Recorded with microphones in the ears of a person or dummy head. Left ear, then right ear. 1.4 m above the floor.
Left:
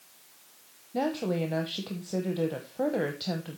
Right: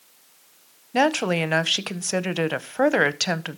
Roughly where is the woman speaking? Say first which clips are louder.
Right 9 dB; right.